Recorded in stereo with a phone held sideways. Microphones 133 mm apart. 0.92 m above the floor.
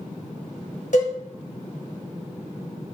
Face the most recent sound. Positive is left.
turn(degrees=65)  # may be behind; listen again after turning